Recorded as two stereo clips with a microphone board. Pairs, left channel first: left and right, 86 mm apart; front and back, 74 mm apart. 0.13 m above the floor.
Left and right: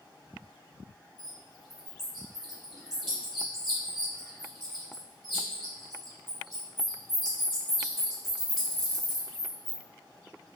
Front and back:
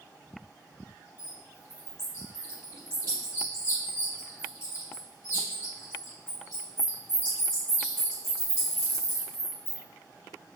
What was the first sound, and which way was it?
A bird, 175° right.